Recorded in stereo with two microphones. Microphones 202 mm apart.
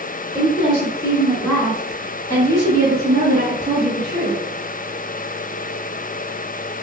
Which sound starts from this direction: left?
A woman speaking, at 0.3 s.